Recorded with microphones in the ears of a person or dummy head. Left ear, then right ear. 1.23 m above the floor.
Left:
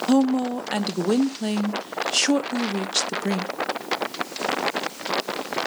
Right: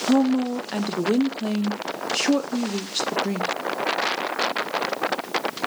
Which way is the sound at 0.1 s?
20° left (ahead or behind).